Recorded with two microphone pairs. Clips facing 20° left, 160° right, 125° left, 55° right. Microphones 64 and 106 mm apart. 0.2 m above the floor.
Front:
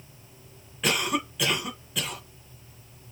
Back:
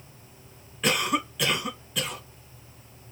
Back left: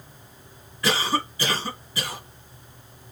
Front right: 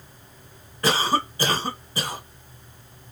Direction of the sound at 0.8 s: 70° right.